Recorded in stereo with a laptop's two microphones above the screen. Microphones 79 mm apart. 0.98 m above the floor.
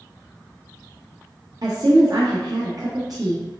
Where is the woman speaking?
55° right (ahead or behind), 0.6 m.